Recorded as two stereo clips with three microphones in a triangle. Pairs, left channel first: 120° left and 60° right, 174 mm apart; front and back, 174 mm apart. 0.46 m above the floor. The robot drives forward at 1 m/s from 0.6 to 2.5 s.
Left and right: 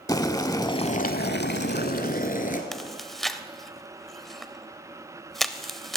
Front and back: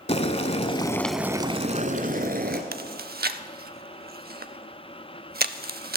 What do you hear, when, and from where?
0.1 s boiling: 50° left, 0.8 m; by 2.6 s 155° left, 1.5 m
2.7 s chewing: 150° right, 0.6 m